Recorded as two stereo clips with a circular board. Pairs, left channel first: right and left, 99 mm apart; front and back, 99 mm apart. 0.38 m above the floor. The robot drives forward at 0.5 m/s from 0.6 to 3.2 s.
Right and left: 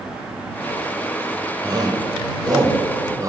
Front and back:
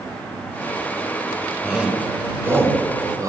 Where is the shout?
100° left, 1.3 m; by 3.3 s 135° left, 1.6 m.